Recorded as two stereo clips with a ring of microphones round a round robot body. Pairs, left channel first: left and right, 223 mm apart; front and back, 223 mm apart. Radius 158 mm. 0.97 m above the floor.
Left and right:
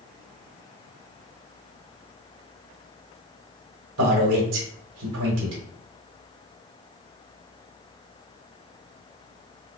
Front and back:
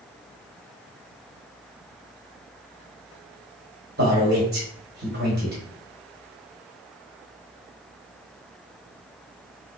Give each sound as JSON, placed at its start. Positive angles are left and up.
{"t": 4.0, "sound": "a man speaking", "azimuth_deg": -120, "distance_m": 1.2}